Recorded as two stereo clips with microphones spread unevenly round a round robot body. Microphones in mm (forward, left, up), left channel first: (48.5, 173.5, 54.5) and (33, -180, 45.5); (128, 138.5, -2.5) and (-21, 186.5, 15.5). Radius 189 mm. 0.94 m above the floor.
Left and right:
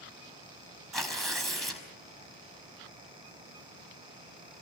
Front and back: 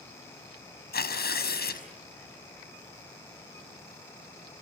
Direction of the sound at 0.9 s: Straight ahead.